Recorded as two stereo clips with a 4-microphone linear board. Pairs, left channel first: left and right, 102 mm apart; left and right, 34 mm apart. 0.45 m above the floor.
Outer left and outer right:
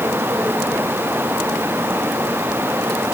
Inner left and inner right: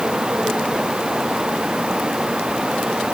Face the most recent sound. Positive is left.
No sound to turn to.